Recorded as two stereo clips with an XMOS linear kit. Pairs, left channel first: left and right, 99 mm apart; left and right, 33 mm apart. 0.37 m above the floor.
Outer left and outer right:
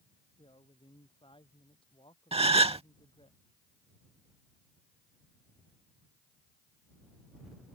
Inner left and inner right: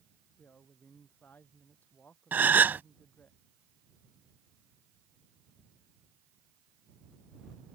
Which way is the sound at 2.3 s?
80° right.